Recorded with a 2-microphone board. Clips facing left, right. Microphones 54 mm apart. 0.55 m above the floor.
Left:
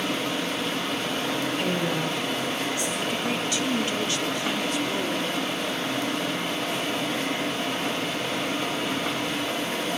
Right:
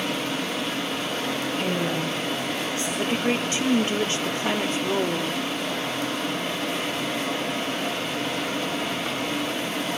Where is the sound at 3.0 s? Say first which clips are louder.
Right 3 dB; 35° right (ahead or behind), 0.9 m.